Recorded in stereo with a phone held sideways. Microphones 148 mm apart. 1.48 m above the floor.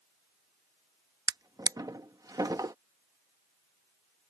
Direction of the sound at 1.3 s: 25° right (ahead or behind).